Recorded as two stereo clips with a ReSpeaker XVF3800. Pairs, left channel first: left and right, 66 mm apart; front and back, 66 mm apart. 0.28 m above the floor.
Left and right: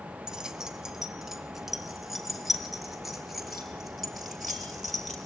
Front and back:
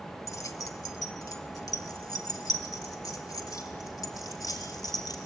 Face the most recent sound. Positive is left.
turn(degrees=0)